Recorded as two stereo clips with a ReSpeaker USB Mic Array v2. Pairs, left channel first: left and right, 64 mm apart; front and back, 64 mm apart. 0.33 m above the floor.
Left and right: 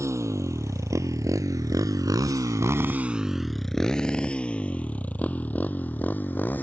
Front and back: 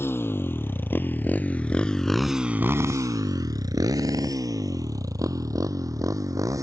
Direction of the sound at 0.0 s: 50° right.